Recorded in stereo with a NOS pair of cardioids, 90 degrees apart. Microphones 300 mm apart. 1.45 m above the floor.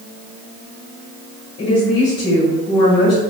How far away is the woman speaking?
About 1.8 m.